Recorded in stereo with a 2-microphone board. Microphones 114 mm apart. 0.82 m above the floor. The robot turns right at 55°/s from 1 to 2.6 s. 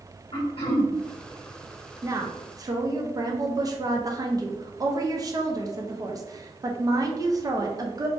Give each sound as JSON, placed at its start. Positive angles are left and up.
{"t": 0.3, "sound": "throat clearing", "side_deg": 55, "distance_m": 0.9}
{"t": 2.0, "sound": "a woman speaking", "azimuth_deg": -125, "distance_m": 0.5}